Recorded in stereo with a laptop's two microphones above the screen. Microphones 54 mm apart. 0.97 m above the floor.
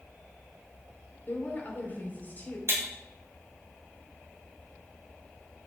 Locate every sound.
1.3 s a woman speaking: 35° left (ahead or behind), 4 m
2.7 s breaking glass: 55° right (ahead or behind), 4 m